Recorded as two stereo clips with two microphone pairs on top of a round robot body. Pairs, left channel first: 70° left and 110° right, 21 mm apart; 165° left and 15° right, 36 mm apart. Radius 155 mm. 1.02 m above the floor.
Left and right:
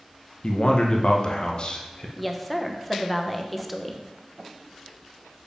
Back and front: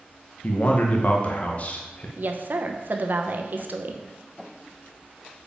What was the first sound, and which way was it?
A man speaking, 110° left.